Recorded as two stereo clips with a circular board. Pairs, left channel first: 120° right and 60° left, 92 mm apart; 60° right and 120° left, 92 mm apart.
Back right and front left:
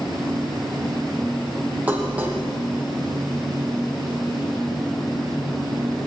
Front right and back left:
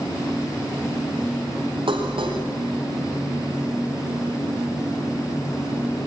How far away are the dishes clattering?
About 3.5 m.